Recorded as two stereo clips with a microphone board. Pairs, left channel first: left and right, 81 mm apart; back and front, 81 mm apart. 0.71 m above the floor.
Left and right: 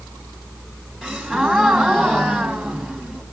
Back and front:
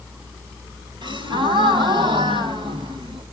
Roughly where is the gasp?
Ahead.